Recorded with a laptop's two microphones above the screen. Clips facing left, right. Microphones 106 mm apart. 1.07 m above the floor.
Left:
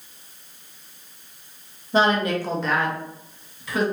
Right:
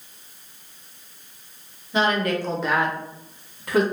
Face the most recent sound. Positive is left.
turn(degrees=-55)  # may be behind; listen again after turning